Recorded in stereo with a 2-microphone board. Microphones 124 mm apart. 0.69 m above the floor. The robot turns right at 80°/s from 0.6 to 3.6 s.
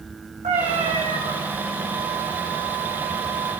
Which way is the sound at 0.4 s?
120° right.